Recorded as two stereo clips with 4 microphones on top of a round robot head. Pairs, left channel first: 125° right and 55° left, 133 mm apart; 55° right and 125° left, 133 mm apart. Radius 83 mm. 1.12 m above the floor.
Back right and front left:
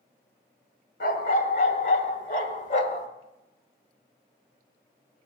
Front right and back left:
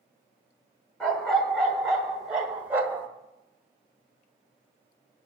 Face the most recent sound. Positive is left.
turn(degrees=-165)